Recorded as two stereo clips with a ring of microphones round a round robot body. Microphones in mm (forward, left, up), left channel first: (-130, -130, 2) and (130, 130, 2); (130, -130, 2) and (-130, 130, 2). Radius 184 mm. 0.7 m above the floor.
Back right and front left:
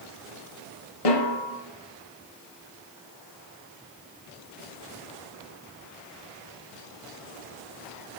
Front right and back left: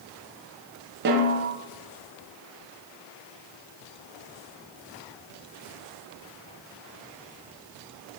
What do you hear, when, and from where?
1.1 s a snare drum: 165° right, 1.5 m